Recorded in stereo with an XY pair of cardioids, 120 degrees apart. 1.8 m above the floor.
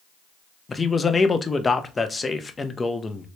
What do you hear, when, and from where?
0.7 s a man speaking: 20° left, 0.6 m